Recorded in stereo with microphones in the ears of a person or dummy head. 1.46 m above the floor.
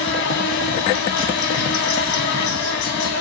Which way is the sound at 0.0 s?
60° left (ahead or behind).